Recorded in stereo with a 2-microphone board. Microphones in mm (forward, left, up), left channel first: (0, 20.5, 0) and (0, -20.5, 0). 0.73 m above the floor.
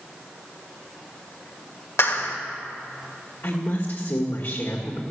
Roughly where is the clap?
Left.